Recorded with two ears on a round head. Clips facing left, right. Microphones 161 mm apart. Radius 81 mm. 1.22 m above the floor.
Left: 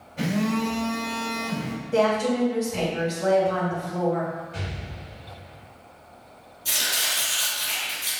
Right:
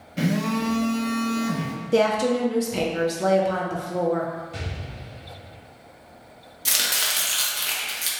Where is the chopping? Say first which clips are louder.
Right 1 dB; 85° right, 1.1 m.